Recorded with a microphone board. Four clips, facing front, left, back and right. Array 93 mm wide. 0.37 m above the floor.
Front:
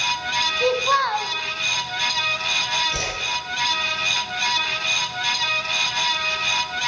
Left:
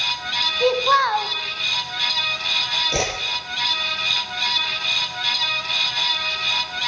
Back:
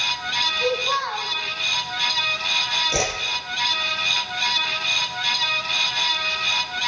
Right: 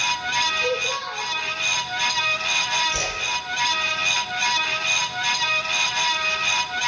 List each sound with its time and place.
0.6 s a child speaking: 65° left, 2.0 m
2.9 s a whoosh: 125° left, 5 m